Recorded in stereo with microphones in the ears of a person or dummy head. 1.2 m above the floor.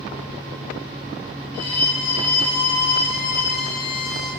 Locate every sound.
1.5 s a violin: 60° left (ahead or behind), 3 m